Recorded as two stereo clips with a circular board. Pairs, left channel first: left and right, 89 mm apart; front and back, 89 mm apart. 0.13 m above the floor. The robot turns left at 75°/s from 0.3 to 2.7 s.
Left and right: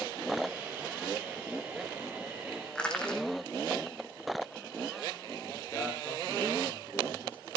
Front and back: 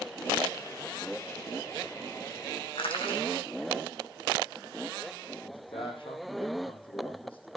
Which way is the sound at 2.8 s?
10° left.